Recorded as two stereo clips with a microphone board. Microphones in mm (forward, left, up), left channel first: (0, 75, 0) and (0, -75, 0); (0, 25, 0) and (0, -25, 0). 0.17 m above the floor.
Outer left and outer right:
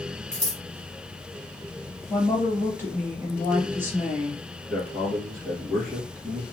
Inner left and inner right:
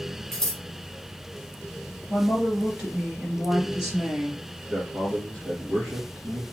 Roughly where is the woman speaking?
Centre.